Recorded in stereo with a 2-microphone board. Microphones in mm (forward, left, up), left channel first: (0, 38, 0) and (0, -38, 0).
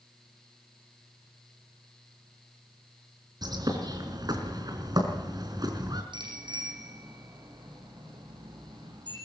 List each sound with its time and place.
3.4 s a bird: 60° right (ahead or behind), 3.5 m
6.1 s a bicycle bell: 80° right, 9 m